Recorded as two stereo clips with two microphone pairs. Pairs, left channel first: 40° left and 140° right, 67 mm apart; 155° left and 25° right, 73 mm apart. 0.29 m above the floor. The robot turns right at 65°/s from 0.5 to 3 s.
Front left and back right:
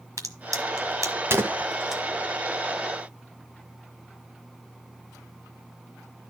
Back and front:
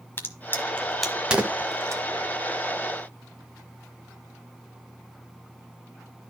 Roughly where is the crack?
Behind right.